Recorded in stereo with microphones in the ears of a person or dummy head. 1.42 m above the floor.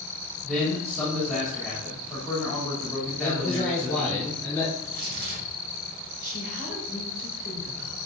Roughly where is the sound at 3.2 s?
Centre.